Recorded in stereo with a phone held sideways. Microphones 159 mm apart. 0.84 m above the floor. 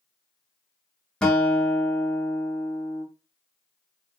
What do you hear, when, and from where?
1.2 s a guitar: 5° left (ahead or behind), 0.7 m